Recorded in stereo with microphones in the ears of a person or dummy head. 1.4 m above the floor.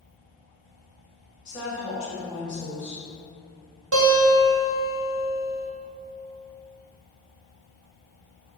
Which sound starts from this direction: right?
A guitar, at 3.9 s.